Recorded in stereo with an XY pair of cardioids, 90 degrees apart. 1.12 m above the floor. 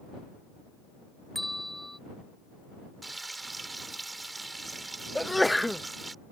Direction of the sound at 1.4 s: Straight ahead.